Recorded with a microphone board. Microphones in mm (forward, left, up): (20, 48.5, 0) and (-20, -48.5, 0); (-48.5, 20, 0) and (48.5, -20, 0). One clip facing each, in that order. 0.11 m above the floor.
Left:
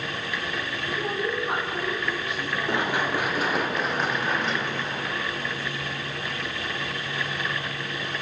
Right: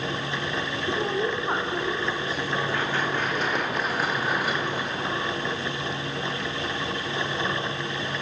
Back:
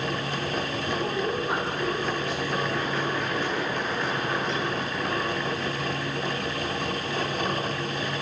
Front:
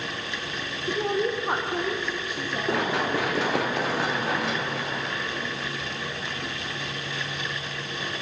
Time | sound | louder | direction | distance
0.9 | a woman speaking | right 2 dB, front 4 dB | 50° right | 3 m
2.7 | running footsteps | left 1 dB, front 2 dB | 5° right | 3.5 m